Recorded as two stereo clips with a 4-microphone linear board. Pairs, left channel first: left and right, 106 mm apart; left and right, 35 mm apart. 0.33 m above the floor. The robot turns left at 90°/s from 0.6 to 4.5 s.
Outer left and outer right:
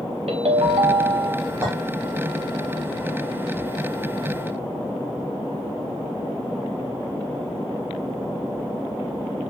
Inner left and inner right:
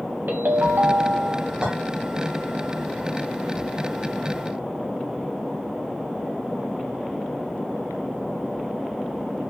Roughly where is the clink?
Right.